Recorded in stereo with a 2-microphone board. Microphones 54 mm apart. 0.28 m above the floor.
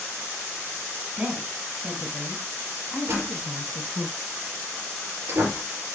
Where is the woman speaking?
25° right (ahead or behind), 2.5 m; by 4.1 s 30° left (ahead or behind), 3 m.